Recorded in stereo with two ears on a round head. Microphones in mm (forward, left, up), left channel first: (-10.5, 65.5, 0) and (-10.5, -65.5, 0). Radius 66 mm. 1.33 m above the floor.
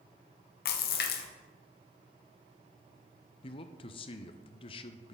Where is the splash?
85° left, 0.9 m.